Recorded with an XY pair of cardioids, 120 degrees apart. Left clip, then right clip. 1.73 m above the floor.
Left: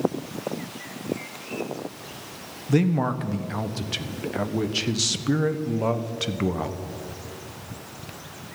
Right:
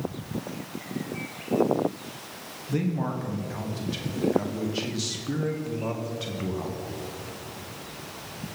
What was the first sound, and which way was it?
A man speaking, 45° left.